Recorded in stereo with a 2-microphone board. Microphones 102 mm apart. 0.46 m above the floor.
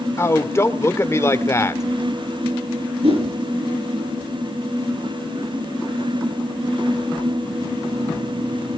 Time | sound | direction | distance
0.2 | a man speaking | 25° left (ahead or behind) | 1.2 m
3.0 | a whoosh | 65° right (ahead or behind) | 6.5 m